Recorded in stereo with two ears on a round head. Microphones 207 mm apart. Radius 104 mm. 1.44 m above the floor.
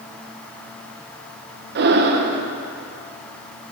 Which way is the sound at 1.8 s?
45° right (ahead or behind).